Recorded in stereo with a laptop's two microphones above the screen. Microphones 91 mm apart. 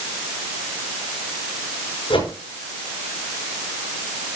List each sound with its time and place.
2.1 s a whoosh: 70° left (ahead or behind), 6.5 m